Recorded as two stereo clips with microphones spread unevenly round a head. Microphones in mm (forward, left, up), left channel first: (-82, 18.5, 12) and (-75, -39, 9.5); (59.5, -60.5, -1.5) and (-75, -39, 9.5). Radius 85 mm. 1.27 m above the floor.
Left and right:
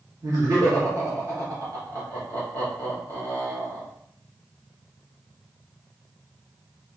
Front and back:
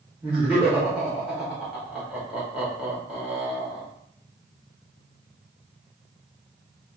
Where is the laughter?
100° right, 1.0 m.